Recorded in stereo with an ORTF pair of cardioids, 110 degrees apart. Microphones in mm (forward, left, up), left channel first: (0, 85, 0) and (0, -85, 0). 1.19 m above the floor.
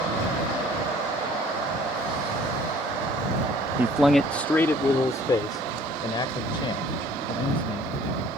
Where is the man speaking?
15° right; by 7.9 s 30° left.